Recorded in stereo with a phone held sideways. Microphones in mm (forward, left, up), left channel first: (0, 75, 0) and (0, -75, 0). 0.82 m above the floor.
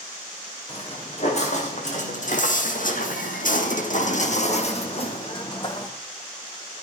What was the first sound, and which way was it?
Footsteps, 45° left (ahead or behind).